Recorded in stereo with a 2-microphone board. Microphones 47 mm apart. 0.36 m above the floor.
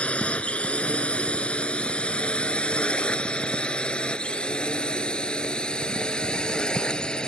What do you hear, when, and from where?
0.0 s a drone: 25° left (ahead or behind); by 7.3 s 15° left (ahead or behind)